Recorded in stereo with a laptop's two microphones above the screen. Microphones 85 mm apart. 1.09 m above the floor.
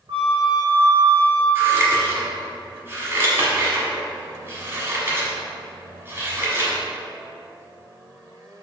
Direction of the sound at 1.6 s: 30° right (ahead or behind).